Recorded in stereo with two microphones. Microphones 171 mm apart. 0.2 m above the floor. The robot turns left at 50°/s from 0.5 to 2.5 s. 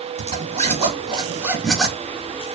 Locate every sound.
0.2 s a zipper: 115° right, 1.0 m; by 2.0 s 170° left, 1.0 m